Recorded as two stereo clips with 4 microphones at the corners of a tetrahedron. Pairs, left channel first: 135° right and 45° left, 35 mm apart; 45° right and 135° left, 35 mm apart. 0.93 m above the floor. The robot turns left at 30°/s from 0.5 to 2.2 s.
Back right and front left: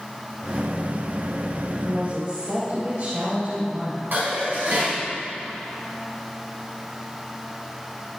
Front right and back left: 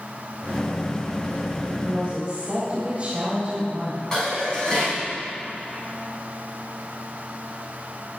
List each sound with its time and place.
1.6 s a woman speaking: 95° left, 3.5 m; by 4.0 s 80° left, 3.5 m
4.1 s dishes clattering: 25° left, 5 m